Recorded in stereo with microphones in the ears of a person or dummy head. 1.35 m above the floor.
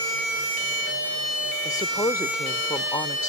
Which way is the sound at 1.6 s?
20° left (ahead or behind).